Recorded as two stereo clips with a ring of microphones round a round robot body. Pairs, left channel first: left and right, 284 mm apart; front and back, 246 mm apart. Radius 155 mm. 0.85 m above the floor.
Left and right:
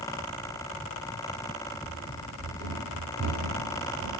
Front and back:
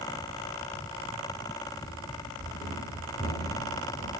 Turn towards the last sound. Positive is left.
turn(degrees=-110)